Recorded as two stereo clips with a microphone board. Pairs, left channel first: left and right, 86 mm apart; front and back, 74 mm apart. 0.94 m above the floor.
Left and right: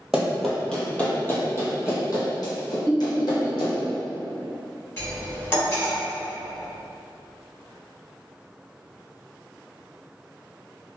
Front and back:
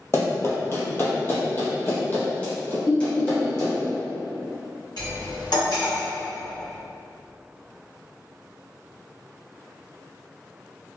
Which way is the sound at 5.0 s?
25° left.